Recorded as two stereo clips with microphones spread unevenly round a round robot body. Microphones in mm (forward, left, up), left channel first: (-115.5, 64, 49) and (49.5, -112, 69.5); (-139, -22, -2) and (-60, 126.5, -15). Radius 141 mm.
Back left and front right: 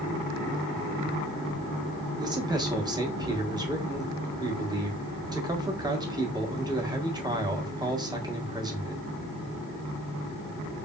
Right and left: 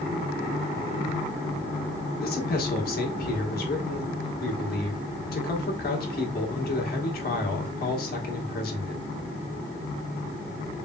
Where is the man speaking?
120° right, 1.4 m.